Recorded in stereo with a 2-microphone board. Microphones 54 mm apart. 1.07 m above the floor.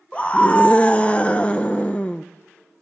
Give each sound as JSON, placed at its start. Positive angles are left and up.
{"t": 0.1, "sound": "a scream", "side_deg": 25, "distance_m": 0.5}